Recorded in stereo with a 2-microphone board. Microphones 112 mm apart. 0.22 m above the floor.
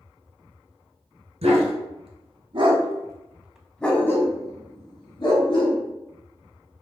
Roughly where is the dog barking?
Right.